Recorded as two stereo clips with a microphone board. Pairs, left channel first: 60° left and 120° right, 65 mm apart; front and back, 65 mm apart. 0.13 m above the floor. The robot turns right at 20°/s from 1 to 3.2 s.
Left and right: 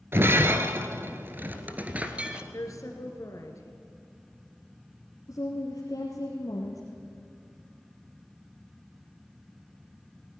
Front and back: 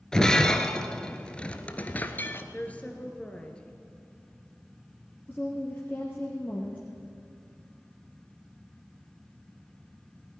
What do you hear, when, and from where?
0.1 s breaking glass: 75° right, 1.2 m; by 2.4 s 50° right, 1.2 m
2.5 s a woman speaking: 60° left, 2.5 m; by 3.8 s 75° left, 2.5 m
5.3 s a woman speaking: 60° left, 2.5 m